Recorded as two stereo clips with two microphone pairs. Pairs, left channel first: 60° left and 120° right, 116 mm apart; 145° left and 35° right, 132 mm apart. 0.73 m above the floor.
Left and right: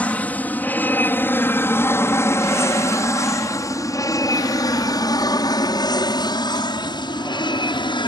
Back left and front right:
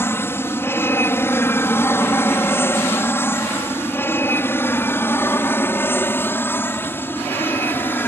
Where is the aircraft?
115° left; by 8.1 s 75° left.